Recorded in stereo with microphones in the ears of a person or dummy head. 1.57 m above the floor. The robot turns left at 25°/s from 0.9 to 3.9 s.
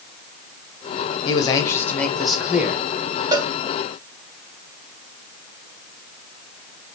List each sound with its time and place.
1.2 s a man speaking: 25° left, 1.0 m; by 2.9 s 15° right, 1.0 m
3.3 s a cowbell: 15° right (ahead or behind), 0.7 m; by 3.5 s 10° right (ahead or behind), 0.7 m